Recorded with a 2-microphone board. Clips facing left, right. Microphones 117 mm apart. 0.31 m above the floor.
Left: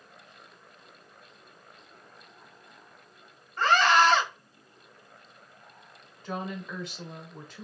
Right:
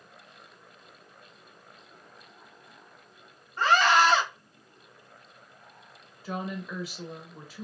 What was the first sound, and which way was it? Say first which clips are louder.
A scream: even; 15° right (ahead or behind).